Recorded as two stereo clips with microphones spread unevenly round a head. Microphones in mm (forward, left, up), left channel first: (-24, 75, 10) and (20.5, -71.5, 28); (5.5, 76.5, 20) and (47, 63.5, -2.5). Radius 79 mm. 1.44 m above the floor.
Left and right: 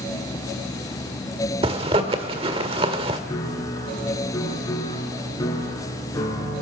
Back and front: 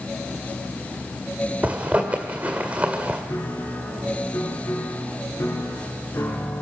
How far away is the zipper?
About 1.6 m.